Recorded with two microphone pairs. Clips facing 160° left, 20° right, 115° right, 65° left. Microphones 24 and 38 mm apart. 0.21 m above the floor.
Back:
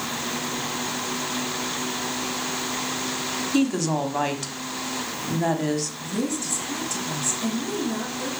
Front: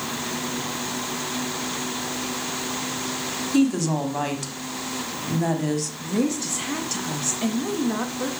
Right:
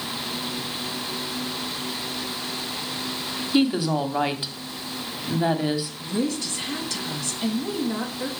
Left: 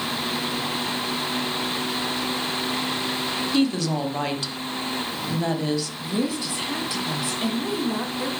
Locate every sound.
3.5 s a woman speaking: 145° right, 1.0 m
6.0 s a woman speaking: 5° right, 1.7 m